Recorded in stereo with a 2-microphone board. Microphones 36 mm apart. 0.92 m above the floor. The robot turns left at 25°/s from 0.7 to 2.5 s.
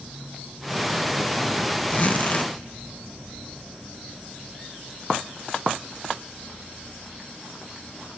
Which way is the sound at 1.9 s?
40° left (ahead or behind).